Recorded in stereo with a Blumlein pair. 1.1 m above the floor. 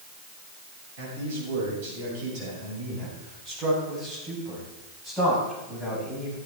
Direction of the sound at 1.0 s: 55° right.